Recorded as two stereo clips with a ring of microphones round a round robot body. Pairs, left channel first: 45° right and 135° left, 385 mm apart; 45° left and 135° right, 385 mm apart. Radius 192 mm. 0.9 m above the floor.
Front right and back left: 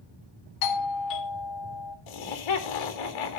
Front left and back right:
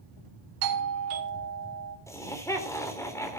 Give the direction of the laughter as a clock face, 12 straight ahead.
1 o'clock.